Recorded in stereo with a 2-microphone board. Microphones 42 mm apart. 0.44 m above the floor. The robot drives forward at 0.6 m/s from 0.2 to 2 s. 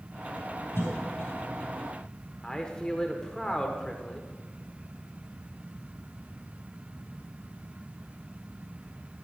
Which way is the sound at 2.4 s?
15° left (ahead or behind).